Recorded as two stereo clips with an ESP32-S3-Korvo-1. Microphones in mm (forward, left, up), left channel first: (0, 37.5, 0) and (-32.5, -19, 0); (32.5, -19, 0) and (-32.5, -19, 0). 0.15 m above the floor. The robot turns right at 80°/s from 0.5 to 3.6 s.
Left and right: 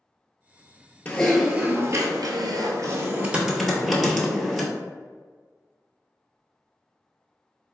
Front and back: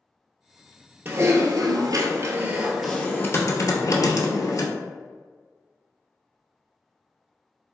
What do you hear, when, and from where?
1.1 s typing on a keyboard: 125° left, 0.6 m; by 4.7 s 30° right, 0.6 m